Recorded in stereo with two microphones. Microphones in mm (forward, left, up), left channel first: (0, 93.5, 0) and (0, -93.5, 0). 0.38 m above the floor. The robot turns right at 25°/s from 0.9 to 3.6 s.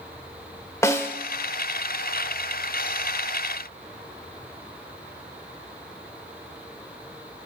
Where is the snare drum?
15° left (ahead or behind), 1.0 m; by 1.1 s 10° left (ahead or behind), 1.0 m.